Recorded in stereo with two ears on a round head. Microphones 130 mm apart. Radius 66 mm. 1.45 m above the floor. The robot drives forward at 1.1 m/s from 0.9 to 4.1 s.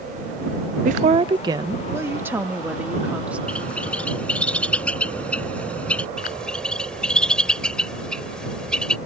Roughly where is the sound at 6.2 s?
Centre.